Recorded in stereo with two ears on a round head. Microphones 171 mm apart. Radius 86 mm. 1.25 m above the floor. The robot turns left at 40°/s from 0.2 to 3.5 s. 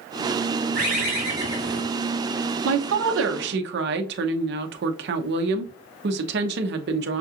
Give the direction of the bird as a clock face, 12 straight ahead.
4 o'clock.